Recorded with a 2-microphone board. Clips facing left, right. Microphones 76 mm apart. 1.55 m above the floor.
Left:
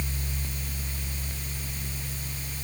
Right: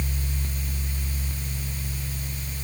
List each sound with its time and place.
Only background noise.